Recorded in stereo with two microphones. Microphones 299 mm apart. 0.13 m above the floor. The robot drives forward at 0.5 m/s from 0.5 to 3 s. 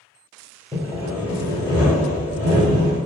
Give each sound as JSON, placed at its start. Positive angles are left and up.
{"t": 0.7, "sound": "sawing", "side_deg": -20, "distance_m": 1.2}